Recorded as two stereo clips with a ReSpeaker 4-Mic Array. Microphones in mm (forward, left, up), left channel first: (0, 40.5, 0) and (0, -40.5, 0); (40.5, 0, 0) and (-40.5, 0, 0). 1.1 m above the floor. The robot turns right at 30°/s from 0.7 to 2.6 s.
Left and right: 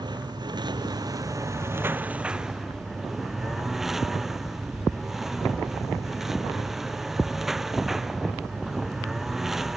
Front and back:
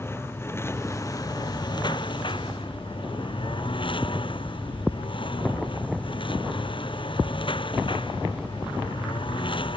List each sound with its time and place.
0.0 s a lawn mower: 60° right; by 9.8 s 5° right